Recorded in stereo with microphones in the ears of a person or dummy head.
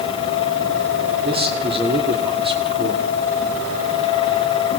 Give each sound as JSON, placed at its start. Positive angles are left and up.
{"t": 1.2, "sound": "a man speaking", "side_deg": -35, "distance_m": 3.0}